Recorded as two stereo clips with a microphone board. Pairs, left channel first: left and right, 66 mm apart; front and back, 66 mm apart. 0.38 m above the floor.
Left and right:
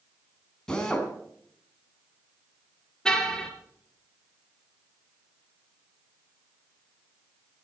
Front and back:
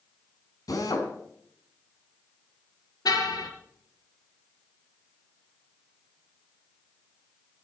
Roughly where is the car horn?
Ahead.